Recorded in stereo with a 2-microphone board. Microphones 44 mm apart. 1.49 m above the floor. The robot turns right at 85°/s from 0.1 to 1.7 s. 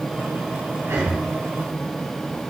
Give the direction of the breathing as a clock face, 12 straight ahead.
3 o'clock.